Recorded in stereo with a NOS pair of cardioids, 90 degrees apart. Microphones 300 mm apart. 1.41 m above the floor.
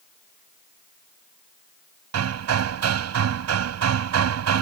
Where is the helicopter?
No helicopter in this recording.